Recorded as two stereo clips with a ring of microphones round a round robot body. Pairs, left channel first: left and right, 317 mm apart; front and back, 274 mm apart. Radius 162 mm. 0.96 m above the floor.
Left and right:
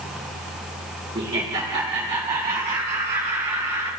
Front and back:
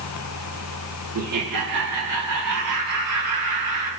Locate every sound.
1.1 s laughter: 165° right, 1.7 m; by 3.9 s 170° right, 5 m